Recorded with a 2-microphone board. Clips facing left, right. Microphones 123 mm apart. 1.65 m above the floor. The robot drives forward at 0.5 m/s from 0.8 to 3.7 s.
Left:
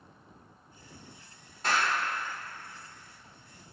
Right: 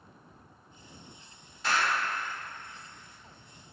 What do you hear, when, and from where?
1.6 s a clap: 50° left (ahead or behind), 1.7 m; by 1.9 s 55° left (ahead or behind), 1.6 m